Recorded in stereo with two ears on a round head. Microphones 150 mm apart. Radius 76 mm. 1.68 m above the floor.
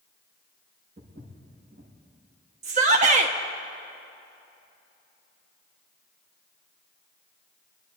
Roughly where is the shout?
Right.